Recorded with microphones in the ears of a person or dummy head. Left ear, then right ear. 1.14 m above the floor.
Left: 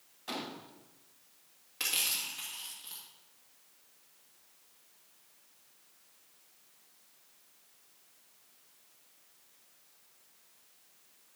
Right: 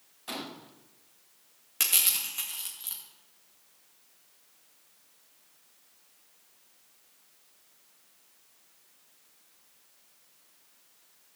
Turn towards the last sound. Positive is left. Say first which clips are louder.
# right 4 dB
turn(degrees=-40)  # may be behind; listen again after turning